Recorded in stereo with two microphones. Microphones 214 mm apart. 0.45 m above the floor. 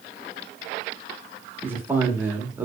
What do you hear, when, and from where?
1.6 s a man speaking: 10° right (ahead or behind), 0.9 m